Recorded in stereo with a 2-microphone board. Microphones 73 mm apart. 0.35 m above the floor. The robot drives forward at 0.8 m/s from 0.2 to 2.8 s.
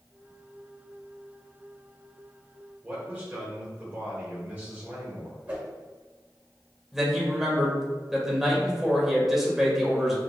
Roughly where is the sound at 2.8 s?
Right.